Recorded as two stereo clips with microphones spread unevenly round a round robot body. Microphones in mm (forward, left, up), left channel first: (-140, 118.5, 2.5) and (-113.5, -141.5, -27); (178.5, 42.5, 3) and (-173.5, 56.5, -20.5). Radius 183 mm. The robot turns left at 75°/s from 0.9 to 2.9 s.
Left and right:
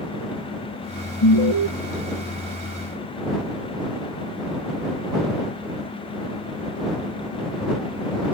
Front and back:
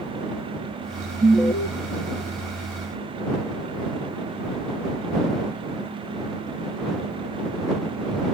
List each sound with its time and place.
1.2 s an alarm: 100° left; by 1.7 s 65° left